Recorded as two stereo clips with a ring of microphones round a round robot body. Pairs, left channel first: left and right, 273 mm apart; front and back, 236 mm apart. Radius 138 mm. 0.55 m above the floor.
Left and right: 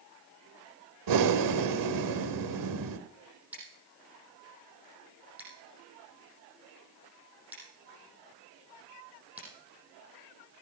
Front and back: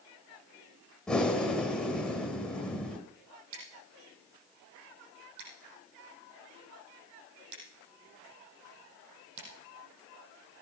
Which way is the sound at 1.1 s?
85° right.